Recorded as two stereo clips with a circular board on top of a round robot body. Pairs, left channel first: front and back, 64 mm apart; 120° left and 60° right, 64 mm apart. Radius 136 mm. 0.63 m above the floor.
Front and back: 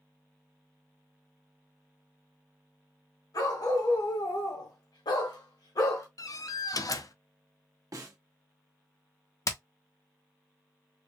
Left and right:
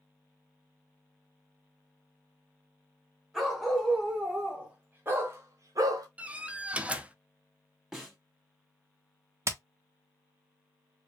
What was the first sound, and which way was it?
A dog barking, 25° left.